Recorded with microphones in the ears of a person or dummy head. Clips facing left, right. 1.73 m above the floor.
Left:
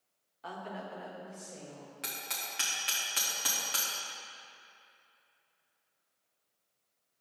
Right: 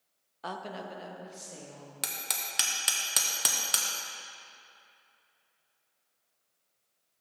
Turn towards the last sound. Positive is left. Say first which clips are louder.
# right 3 dB
turn(degrees=-60)  # may be behind; listen again after turning